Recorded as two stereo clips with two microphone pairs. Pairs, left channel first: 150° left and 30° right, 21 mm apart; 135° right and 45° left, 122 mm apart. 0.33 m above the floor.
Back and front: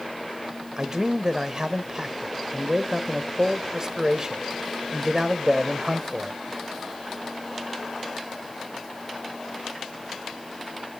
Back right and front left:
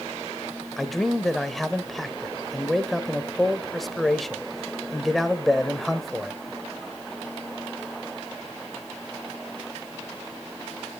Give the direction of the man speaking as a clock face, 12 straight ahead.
2 o'clock.